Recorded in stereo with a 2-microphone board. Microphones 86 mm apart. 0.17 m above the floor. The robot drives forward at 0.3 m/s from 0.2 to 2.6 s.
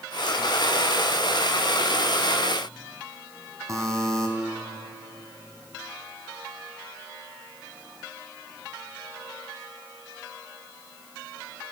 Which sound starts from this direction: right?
A buzzer, at 3.7 s.